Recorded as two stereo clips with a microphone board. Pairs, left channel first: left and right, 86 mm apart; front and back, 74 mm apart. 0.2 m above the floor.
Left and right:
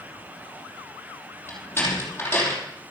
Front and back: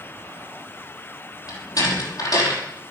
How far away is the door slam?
About 5.5 m.